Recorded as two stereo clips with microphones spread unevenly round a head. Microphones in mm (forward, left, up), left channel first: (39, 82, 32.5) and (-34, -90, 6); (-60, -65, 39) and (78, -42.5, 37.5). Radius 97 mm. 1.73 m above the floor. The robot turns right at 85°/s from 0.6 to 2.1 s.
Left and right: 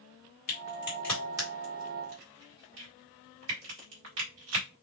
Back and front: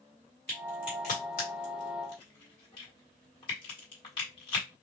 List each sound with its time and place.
0.5 s a crack: 105° left, 2.0 m; by 4.7 s 130° right, 2.0 m